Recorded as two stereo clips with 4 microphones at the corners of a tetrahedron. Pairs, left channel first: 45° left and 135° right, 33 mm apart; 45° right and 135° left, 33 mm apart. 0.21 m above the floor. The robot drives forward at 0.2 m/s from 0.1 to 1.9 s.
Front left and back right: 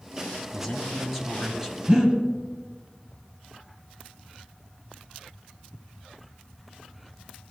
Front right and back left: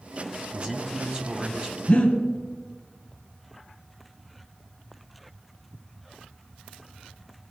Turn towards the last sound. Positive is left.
turn(degrees=-90)